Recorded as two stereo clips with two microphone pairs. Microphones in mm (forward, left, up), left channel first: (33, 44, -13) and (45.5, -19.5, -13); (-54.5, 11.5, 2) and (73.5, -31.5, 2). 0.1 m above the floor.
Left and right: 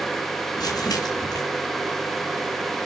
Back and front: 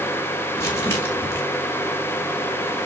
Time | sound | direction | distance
0.6 | crumpling | 90° left | 6.5 m